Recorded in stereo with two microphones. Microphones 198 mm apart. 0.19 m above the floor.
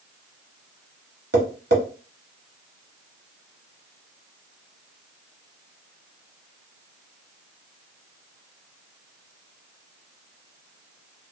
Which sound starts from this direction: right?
Tapping, at 1.3 s.